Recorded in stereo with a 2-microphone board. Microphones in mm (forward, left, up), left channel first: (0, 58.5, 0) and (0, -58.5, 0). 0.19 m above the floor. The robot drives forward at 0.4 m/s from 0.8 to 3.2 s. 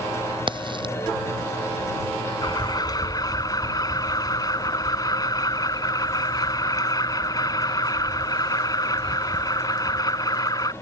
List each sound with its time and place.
0.5 s a crack: 45° right (ahead or behind)
2.4 s an alarm: 40° left (ahead or behind); by 10.7 s 35° left (ahead or behind)